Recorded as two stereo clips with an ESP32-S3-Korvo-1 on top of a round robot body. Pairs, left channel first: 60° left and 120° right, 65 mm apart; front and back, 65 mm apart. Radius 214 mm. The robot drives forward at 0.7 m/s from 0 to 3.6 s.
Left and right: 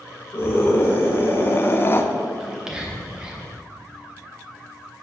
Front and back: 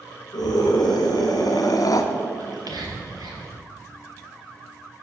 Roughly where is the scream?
Ahead.